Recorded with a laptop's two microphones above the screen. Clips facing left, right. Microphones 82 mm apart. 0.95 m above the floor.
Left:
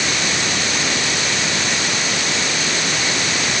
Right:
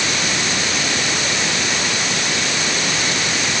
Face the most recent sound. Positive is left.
No sound to turn to.